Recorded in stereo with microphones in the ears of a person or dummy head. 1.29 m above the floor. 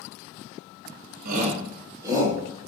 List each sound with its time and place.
1.2 s a shout: 50° right (ahead or behind), 1.0 m; by 2.4 s 10° right (ahead or behind), 1.8 m